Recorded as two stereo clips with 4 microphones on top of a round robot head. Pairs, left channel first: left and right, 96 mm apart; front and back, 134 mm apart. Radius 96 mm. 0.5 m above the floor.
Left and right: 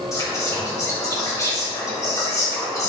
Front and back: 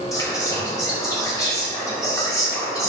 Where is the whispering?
55° left, 1.4 m.